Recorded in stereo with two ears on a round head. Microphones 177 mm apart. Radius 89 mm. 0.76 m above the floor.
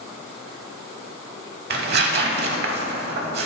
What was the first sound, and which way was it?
Tearing paper, 55° right (ahead or behind).